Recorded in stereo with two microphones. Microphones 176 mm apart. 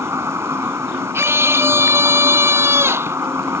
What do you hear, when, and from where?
0.0 s an insect: 15° right (ahead or behind)
1.1 s a scream: 15° right (ahead or behind)